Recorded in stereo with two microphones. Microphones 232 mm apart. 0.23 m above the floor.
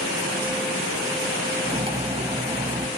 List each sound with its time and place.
1.6 s cutlery clinking: 25° right (ahead or behind), 0.6 m